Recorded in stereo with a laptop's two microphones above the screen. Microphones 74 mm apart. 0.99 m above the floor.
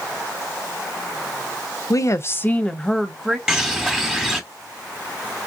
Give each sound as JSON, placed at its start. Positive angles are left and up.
{"t": 1.9, "sound": "a woman speaking", "side_deg": 50, "distance_m": 0.6}
{"t": 3.5, "sound": "a bird", "side_deg": -5, "distance_m": 1.0}